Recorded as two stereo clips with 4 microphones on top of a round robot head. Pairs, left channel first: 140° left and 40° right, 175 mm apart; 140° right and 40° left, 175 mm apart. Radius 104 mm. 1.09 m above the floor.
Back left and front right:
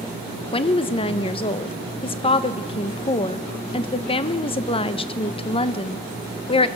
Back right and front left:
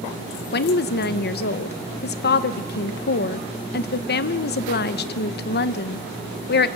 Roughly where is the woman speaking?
Behind.